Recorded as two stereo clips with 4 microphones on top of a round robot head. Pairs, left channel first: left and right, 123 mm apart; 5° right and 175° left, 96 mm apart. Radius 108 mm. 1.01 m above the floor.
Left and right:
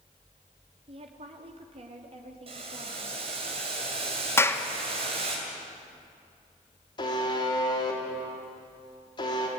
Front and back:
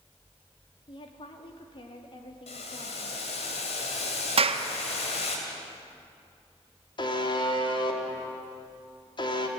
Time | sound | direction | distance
0.9 | a woman speaking | 45° right | 2.5 m
2.5 | boiling | 35° right | 2.5 m
4.4 | a clap | 160° left | 1.8 m
7.0 | a buzzer | 35° left | 3 m